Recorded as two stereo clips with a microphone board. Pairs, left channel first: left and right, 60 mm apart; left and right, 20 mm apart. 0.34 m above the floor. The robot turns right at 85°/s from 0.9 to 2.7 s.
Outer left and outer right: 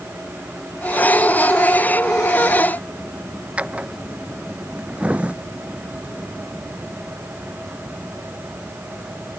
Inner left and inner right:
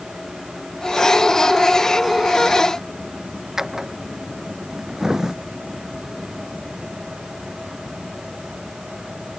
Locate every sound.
3.6 s a drawer: 20° right (ahead or behind)